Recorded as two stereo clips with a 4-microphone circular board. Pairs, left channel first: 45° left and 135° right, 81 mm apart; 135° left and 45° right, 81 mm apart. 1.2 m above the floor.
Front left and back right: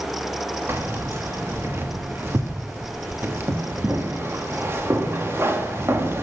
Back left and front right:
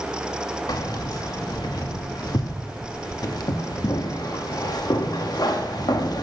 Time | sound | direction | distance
0.7 | keys jangling | 165° left | 1.2 m